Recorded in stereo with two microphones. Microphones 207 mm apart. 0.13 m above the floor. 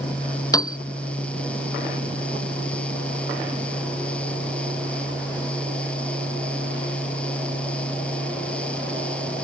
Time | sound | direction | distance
0.5 | a piano | 15° left (ahead or behind) | ?